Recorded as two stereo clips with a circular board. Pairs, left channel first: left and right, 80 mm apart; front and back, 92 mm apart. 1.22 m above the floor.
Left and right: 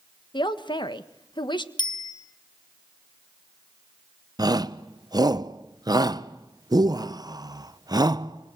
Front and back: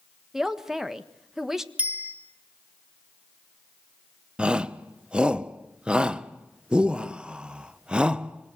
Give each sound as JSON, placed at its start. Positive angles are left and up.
{"t": 0.3, "sound": "a man speaking", "azimuth_deg": 95, "distance_m": 1.5}
{"t": 1.8, "sound": "a bicycle bell", "azimuth_deg": 105, "distance_m": 3.5}
{"t": 4.4, "sound": "a shout", "azimuth_deg": -105, "distance_m": 1.0}